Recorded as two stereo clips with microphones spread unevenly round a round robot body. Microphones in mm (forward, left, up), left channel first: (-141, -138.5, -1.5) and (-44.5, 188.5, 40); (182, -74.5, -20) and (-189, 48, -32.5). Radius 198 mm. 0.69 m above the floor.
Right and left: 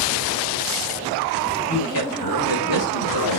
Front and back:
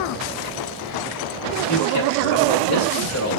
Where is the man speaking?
70° right, 3.5 m.